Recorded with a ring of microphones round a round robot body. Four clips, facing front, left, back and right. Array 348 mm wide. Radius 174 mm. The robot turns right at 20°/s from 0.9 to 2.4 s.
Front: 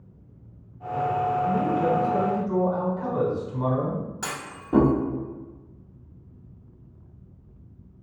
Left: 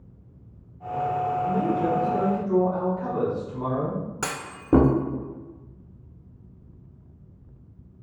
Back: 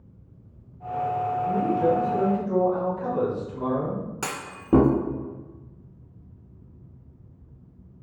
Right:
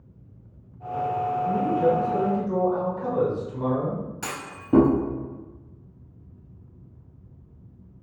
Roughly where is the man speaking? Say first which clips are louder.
Right 5 dB, back 1 dB; ahead.